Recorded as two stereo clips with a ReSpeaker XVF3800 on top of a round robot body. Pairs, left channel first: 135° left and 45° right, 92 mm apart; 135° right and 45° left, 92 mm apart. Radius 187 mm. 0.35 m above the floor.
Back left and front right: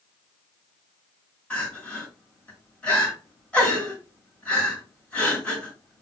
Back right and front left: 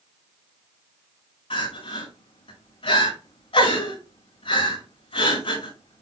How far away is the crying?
About 6 m.